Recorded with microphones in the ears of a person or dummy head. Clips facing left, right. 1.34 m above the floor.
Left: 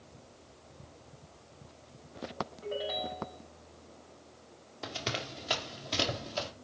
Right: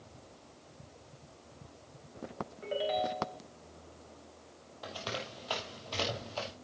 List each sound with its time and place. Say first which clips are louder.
2.6 s a ringtone: right 5 dB; 35° right (ahead or behind), 3.5 m
4.8 s running footsteps: left 2 dB; 30° left (ahead or behind), 2.5 m; by 6.5 s 20° left (ahead or behind), 3 m